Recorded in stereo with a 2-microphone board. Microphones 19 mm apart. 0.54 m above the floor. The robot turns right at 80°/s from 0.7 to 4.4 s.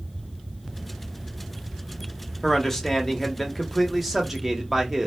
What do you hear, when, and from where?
2.4 s a man speaking: 20° left (ahead or behind), 0.7 m; by 5.1 s 15° right (ahead or behind), 0.7 m